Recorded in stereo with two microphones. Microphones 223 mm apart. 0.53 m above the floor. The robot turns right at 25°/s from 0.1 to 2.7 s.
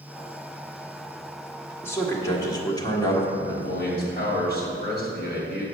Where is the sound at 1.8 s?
10° left (ahead or behind), 1.3 m; by 3.3 s 15° left (ahead or behind), 1.3 m.